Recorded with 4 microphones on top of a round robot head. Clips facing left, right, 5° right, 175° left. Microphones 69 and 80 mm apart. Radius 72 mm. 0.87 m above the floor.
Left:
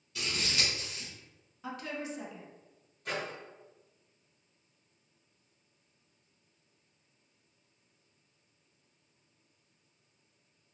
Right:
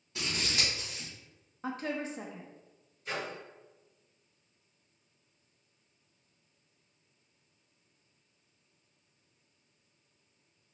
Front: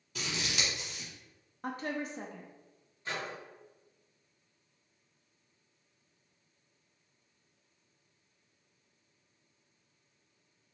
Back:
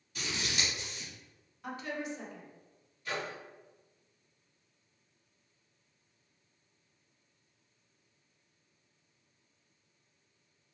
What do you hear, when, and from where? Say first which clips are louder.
0.1 s scissors: even, even; 20° right, 1.0 m
1.6 s a woman speaking: right 3 dB, front 2 dB; 45° right, 0.5 m
3.0 s a microwave: even, back 1 dB; 60° left, 1.6 m